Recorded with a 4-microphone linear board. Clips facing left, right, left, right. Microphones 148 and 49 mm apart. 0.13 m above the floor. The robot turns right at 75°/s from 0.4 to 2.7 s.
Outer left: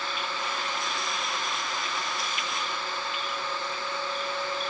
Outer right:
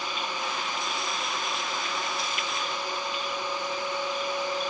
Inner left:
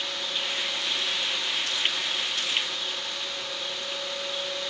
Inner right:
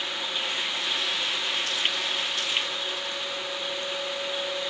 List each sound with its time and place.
Only background noise.